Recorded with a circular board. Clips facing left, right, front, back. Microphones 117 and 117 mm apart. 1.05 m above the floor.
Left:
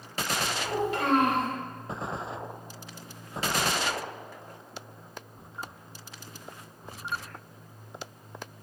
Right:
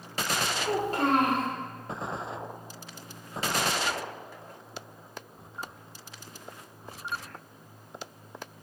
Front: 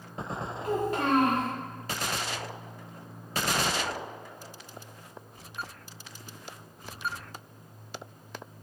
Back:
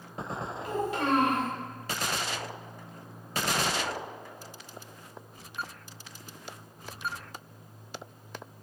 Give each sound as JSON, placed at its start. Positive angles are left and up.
{"t": 0.6, "sound": "a child speaking", "azimuth_deg": -45, "distance_m": 1.7}